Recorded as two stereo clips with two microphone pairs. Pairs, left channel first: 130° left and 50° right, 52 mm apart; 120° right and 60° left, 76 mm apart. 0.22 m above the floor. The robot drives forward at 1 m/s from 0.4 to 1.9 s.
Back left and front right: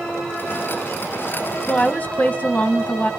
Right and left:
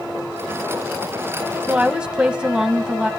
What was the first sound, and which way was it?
A woman speaking, 105° left.